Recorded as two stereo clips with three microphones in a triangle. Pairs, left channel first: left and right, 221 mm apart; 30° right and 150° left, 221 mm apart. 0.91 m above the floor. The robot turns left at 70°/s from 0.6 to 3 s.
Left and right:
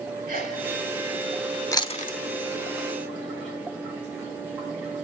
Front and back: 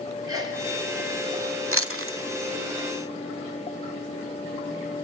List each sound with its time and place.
0.3 s a sneeze: 135° right, 4 m; by 0.6 s 140° right, 4 m
1.7 s chewing: 165° left, 1.2 m; by 2.2 s 130° left, 1.2 m